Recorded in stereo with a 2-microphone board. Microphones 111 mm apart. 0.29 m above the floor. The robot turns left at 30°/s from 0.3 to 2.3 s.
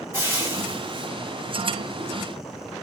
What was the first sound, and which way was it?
Frying, 25° right (ahead or behind).